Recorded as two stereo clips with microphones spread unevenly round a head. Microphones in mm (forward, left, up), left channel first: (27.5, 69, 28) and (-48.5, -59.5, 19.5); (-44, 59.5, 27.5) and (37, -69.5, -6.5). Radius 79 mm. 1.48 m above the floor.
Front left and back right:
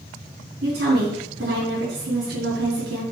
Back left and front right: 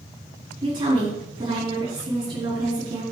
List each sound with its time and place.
0.6 s a woman speaking: 120° right, 3.5 m